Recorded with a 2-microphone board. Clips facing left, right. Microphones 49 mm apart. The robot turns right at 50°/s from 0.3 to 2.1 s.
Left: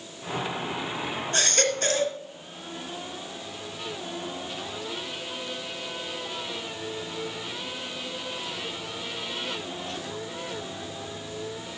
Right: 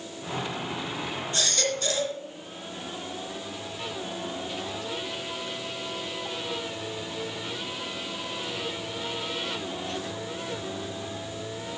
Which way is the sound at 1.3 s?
85° left.